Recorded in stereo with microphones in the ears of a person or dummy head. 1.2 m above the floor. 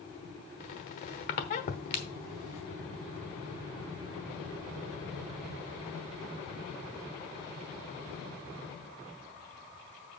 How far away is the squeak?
About 1.1 m.